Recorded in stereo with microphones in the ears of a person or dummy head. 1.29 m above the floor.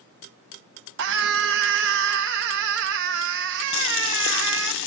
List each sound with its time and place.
1.0 s a scream: 65° right (ahead or behind), 1.3 m
3.7 s boiling: 65° left (ahead or behind), 0.9 m